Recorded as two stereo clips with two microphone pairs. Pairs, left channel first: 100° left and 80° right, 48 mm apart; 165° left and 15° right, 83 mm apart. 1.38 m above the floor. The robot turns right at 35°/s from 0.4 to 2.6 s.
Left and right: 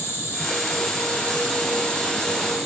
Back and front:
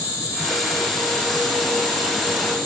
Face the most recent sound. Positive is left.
turn(degrees=-170)